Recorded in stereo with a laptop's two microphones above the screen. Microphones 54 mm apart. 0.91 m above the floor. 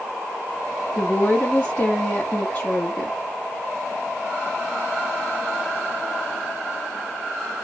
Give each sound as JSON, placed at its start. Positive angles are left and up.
{"t": 0.9, "sound": "a woman speaking", "side_deg": 25, "distance_m": 2.0}